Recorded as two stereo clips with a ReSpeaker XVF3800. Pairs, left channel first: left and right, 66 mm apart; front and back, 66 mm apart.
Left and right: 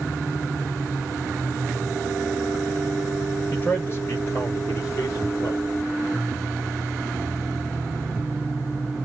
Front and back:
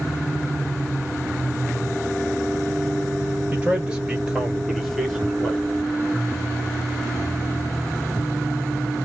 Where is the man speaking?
125° left, 1.4 m; by 5.7 s 75° left, 2 m.